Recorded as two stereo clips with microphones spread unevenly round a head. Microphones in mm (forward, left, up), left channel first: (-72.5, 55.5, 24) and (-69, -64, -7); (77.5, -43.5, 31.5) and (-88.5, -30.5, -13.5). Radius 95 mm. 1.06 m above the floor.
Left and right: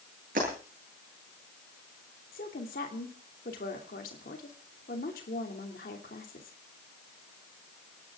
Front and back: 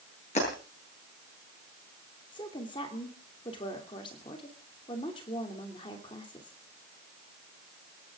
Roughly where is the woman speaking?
Ahead left.